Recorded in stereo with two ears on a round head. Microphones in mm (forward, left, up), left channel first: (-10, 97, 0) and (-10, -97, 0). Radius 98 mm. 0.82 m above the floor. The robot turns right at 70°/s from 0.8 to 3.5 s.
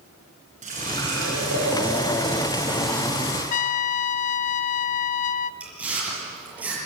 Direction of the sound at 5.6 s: 5° right (ahead or behind).